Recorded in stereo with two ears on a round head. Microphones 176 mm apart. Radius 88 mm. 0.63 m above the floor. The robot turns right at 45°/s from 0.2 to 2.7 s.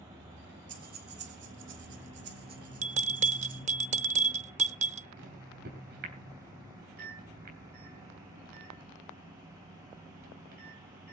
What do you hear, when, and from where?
0.7 s breathing: 40° right (ahead or behind), 1.8 m
2.8 s a bell: 35° right (ahead or behind), 0.7 m
5.2 s a microwave: 55° right (ahead or behind), 3 m